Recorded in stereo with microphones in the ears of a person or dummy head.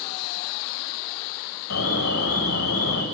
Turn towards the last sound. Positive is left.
turn(degrees=75)  # may be behind; listen again after turning